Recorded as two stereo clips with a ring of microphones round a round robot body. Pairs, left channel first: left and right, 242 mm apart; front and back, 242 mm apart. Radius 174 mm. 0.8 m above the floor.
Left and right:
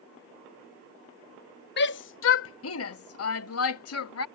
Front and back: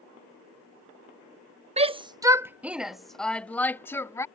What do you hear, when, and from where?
1.8 s a shout: 120° left; by 4.2 s 80° left